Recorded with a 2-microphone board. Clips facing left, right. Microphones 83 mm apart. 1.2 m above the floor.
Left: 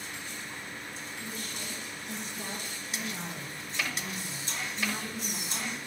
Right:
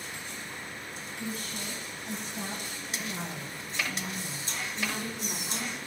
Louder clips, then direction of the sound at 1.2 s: Right 5 dB; 80° right.